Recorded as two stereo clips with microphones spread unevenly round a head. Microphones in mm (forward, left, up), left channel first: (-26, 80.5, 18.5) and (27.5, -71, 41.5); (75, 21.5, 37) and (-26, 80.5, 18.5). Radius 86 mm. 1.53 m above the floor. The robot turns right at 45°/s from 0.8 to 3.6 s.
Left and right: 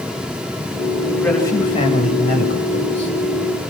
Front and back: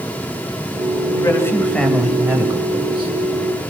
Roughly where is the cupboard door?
No cupboard door in this recording.